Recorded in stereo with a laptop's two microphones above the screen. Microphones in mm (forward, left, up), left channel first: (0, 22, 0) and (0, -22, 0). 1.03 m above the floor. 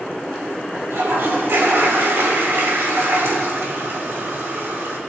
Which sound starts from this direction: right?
A toilet flushing, at 0.9 s.